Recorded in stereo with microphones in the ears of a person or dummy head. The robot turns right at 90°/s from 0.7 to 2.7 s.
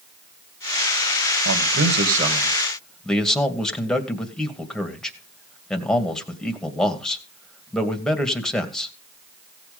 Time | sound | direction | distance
1.4 | a man speaking | 105° right | 1.9 m